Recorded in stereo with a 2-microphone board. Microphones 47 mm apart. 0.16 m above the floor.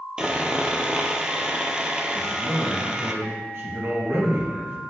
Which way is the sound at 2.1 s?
60° right (ahead or behind).